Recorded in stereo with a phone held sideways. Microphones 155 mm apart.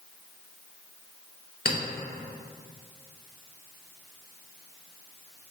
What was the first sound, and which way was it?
A clink, 75° left (ahead or behind).